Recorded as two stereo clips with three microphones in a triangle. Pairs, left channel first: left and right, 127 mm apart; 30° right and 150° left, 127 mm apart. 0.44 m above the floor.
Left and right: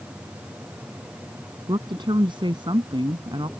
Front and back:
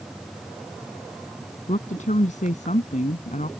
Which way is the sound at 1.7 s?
40° right.